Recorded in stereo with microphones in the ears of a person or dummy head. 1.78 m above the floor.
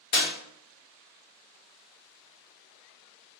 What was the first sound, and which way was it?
A clap, 40° left (ahead or behind).